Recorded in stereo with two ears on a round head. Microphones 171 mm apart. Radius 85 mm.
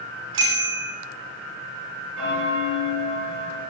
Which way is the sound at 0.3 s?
75° right (ahead or behind).